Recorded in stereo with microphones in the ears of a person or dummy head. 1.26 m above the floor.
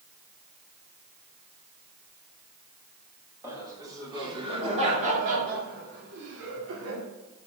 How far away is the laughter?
About 3 m.